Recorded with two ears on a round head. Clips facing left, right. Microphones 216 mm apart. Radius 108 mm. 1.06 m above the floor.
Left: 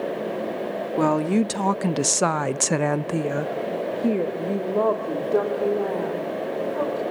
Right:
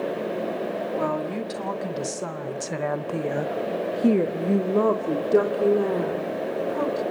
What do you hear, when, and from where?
1.0 s a woman speaking: 60° left (ahead or behind), 1.8 m; by 7.0 s 35° right (ahead or behind), 3.5 m